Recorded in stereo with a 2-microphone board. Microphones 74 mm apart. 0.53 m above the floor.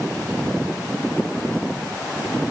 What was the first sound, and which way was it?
Only background noise.